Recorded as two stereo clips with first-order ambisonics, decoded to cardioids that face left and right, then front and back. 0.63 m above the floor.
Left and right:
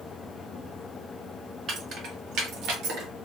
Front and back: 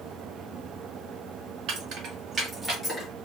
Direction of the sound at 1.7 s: 150° right.